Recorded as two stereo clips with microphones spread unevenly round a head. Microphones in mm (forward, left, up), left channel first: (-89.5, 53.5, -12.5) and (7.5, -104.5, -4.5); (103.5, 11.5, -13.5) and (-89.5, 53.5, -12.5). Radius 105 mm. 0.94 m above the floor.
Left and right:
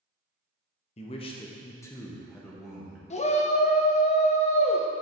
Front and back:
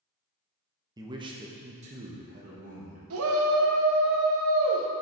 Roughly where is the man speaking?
Left.